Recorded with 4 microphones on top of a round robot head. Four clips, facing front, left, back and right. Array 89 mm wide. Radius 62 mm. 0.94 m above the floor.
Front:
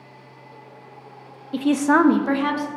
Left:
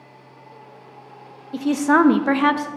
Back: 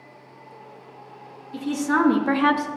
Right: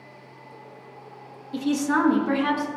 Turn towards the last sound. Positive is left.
turn(degrees=100)